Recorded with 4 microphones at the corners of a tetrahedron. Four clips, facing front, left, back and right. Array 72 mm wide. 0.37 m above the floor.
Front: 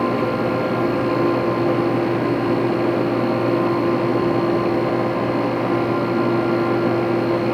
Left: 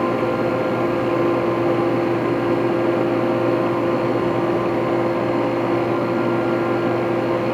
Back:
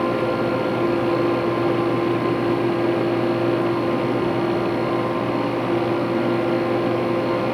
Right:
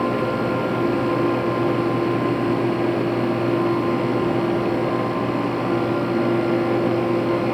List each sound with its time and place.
Only background noise.